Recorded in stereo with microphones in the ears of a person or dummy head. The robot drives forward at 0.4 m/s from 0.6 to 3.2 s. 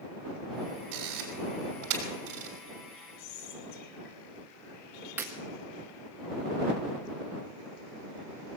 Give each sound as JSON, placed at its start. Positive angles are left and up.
{"t": 0.9, "sound": "a camera shutter", "side_deg": -60, "distance_m": 5.0}
{"t": 3.2, "sound": "whispering", "side_deg": 60, "distance_m": 5.0}
{"t": 5.2, "sound": "breaking glass", "side_deg": -10, "distance_m": 1.5}